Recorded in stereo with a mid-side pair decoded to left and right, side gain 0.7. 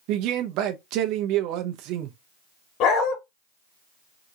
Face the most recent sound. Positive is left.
turn(degrees=60)